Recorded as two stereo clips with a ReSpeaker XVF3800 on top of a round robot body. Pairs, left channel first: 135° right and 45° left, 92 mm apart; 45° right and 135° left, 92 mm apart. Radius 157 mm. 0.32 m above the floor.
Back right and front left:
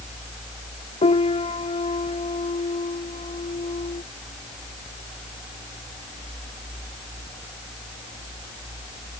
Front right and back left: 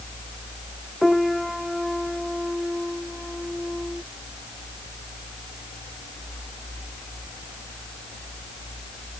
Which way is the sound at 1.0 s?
135° right.